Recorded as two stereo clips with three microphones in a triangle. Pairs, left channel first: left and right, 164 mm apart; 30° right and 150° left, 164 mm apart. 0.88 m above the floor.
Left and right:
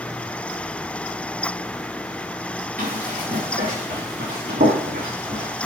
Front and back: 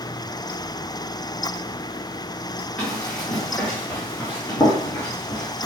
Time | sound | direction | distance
2.8 | running footsteps | 110° right | 4 m